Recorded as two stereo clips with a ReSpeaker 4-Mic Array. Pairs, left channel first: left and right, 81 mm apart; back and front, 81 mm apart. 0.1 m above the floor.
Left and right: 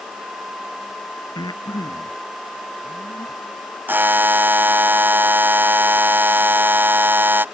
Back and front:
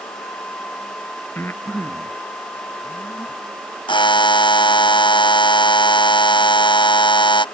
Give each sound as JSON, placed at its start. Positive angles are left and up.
{"t": 1.4, "sound": "breathing", "azimuth_deg": 115}
{"t": 3.9, "sound": "a buzzer", "azimuth_deg": -155}